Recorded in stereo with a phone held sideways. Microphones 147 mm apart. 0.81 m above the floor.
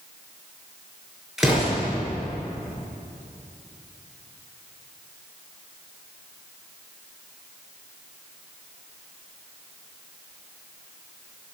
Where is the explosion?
Centre (ahead or behind), 7.5 m.